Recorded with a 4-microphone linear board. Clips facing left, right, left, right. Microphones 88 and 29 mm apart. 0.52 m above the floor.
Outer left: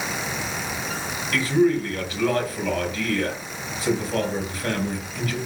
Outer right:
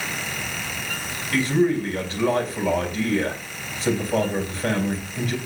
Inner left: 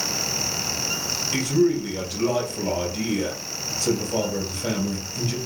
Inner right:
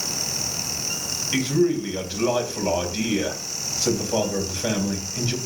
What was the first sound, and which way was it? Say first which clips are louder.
A man speaking: outer left 1 dB, even; 30° right (ahead or behind).